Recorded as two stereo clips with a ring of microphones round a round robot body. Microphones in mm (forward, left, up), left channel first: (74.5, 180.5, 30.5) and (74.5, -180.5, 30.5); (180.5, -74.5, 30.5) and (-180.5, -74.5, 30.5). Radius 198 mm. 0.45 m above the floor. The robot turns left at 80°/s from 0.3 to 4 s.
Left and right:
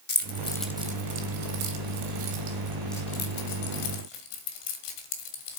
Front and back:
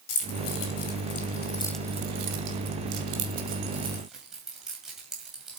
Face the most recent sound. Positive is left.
turn(degrees=90)